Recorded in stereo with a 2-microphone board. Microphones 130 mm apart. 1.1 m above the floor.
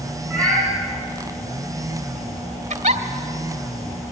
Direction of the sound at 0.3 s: 5° left (ahead or behind).